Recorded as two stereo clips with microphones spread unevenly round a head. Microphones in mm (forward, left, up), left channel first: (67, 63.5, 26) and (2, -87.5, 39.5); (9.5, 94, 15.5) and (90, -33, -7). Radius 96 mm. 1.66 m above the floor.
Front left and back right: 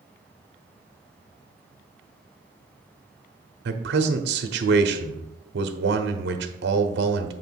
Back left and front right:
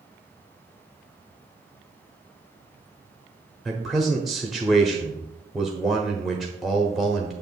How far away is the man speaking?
About 0.8 m.